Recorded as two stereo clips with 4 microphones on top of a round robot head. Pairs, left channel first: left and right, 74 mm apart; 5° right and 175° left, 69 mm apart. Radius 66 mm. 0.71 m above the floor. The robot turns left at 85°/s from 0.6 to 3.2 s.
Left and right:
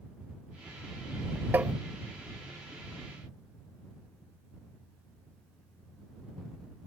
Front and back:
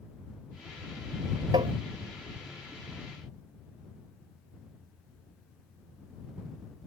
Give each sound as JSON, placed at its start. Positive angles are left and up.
{"t": 1.5, "sound": "tapping", "azimuth_deg": -155}